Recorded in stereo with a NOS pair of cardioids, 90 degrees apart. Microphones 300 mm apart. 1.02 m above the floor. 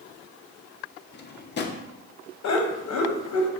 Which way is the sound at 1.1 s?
35° left.